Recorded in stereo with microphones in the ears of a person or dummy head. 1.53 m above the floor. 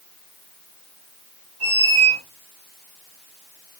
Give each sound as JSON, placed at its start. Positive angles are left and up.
{"t": 1.6, "sound": "a squeak", "side_deg": -40, "distance_m": 1.9}